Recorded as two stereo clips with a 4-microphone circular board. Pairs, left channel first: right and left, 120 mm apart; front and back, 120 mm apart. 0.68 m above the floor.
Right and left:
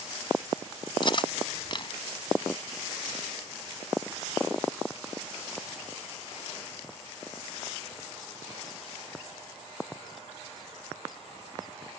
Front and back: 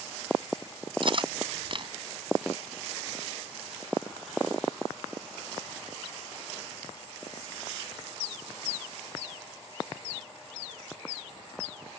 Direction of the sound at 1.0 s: 135° right.